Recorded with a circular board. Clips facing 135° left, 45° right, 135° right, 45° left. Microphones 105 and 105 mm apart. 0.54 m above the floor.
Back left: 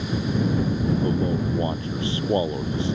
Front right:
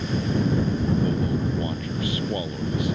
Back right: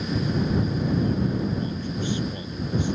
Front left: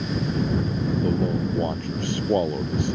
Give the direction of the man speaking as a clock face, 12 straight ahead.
9 o'clock.